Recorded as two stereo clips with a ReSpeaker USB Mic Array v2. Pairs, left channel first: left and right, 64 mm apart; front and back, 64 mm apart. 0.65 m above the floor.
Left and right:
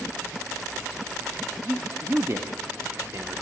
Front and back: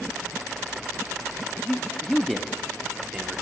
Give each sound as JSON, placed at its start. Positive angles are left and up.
{"t": 1.6, "sound": "a man speaking", "azimuth_deg": -55, "distance_m": 0.9}